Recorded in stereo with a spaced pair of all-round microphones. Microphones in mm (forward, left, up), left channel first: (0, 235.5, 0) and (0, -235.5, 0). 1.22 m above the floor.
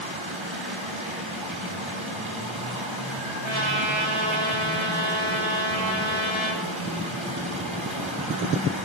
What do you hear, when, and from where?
0.0 s running water: 85° right, 7 m
3.4 s a trumpet: 85° right, 9.5 m